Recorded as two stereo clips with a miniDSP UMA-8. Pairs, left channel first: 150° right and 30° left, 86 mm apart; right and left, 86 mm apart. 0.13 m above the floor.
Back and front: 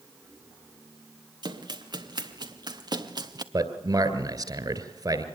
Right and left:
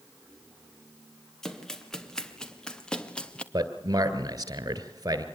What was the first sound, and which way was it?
Running footsteps, 5° right.